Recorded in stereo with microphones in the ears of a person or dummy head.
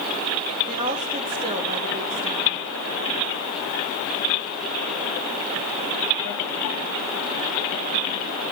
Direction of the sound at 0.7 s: 30° right (ahead or behind).